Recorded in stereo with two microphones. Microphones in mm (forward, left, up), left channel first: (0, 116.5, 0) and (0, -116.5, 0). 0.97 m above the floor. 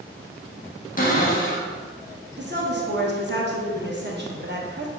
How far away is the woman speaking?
About 1.0 m.